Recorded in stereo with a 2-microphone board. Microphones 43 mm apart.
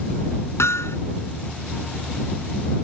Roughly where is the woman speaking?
I don't hear a woman speaking.